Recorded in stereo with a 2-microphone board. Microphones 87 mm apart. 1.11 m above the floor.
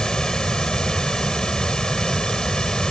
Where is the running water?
10° left (ahead or behind).